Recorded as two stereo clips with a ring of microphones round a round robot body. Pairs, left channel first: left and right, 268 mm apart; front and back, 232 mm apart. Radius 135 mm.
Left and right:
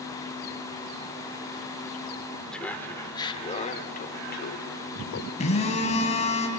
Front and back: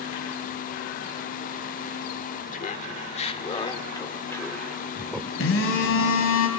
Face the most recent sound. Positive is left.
turn(degrees=25)